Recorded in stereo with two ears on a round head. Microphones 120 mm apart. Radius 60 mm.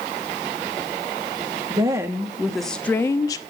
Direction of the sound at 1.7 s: 25° right (ahead or behind).